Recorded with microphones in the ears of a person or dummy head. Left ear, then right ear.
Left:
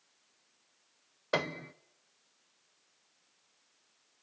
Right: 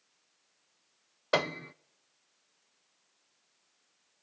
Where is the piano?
25° right (ahead or behind), 0.6 m.